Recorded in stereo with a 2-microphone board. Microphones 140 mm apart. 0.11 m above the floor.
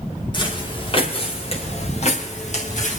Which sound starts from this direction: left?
Footsteps, at 0.3 s.